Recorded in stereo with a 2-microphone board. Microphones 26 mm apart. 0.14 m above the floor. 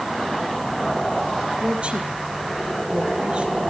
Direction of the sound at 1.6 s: 45° right (ahead or behind).